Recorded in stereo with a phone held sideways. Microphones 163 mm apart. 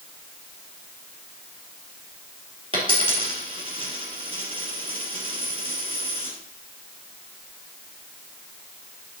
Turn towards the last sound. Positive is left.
turn(degrees=-35)  # may be behind; listen again after turning